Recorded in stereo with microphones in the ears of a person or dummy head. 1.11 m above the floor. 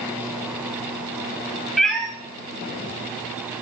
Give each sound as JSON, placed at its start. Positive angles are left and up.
{"t": 1.8, "sound": "a cat meowing", "side_deg": 0, "distance_m": 1.2}